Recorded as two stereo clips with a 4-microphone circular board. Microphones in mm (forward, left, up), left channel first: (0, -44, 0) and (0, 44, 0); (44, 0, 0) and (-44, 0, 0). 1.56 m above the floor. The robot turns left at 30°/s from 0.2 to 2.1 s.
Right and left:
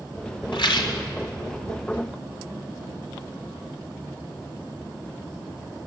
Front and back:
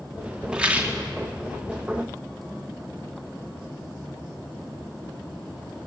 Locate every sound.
0.5 s a rattle: 100° right, 3 m; by 1.0 s 115° right, 3 m